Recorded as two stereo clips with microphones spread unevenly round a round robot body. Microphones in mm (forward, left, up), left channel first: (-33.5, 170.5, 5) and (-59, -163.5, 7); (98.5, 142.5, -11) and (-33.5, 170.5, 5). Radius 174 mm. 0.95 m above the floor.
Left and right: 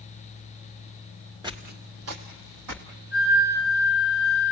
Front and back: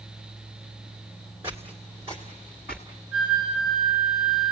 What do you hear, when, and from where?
1.4 s footsteps: 155° right, 1.0 m; by 2.9 s 110° right, 2 m
3.1 s a flute: 95° right, 8.5 m